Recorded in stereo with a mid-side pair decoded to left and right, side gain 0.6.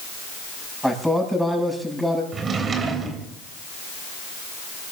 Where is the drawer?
35° right, 3 m.